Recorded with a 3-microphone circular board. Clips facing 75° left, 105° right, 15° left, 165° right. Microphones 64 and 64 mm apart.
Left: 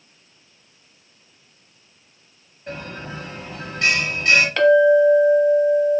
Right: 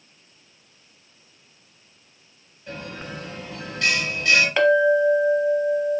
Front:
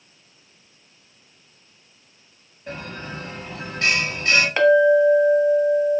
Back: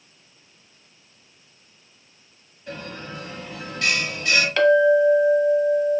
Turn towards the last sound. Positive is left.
turn(degrees=-35)